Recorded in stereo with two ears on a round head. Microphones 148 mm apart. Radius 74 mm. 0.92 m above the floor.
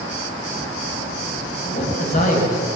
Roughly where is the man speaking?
Left.